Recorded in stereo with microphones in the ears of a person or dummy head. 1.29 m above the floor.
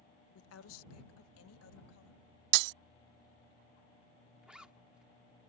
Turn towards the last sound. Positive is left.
turn(degrees=-5)  # may be behind; listen again after turning